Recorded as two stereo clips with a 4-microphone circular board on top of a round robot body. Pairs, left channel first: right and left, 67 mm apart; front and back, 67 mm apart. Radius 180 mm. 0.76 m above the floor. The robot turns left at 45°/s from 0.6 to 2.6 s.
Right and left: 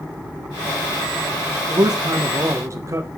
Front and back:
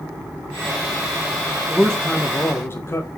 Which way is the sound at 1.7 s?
90° left.